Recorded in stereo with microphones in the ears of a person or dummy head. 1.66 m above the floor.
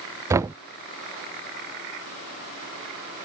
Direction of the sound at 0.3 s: 15° right (ahead or behind).